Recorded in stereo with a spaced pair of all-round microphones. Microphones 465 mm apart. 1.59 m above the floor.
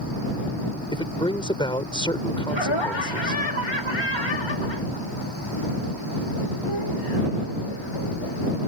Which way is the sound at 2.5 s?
70° left (ahead or behind).